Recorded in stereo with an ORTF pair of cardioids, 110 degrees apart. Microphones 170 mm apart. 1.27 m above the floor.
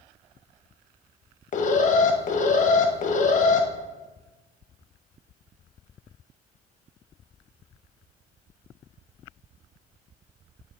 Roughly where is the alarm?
Ahead left.